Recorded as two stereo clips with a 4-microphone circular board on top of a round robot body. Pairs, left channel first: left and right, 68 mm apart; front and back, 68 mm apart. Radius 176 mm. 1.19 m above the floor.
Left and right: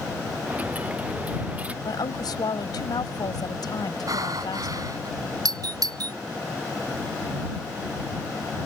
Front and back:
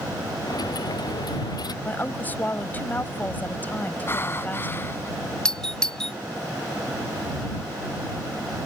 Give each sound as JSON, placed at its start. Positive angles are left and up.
{"t": 0.5, "sound": "a dropped coin", "azimuth_deg": -20}
{"t": 1.9, "sound": "a woman speaking", "azimuth_deg": 65}
{"t": 4.1, "sound": "breathing", "azimuth_deg": -55}
{"t": 5.5, "sound": "a doorbell", "azimuth_deg": -80}